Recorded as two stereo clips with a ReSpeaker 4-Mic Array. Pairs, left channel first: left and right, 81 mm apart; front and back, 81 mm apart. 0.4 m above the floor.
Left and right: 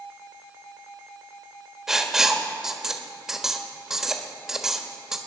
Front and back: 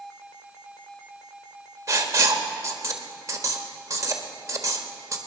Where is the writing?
170° right, 1.3 m.